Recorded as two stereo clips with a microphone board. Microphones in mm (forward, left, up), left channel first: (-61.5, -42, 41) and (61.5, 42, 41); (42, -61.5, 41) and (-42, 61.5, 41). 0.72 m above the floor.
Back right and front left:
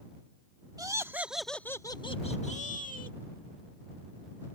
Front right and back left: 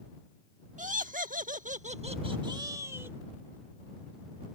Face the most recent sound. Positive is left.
turn(degrees=-160)